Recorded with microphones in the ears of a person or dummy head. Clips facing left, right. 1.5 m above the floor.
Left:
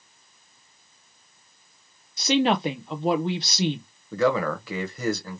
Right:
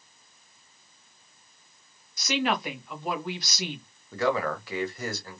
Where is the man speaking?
70° left (ahead or behind), 1.0 m.